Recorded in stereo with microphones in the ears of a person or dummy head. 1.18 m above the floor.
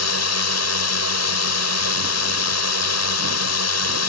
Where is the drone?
75° left (ahead or behind).